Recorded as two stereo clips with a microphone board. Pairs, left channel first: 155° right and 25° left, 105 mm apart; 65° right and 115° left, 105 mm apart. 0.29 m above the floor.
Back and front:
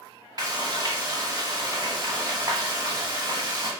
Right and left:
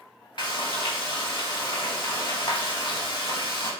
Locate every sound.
0.4 s frying: 25° right, 0.7 m